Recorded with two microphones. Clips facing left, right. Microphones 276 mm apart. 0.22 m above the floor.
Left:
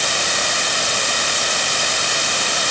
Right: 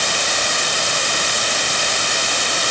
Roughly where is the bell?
No bell in this recording.